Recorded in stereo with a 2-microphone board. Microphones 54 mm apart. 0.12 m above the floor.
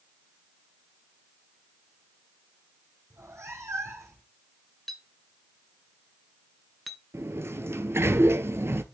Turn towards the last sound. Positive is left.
turn(degrees=-50)  # may be behind; listen again after turning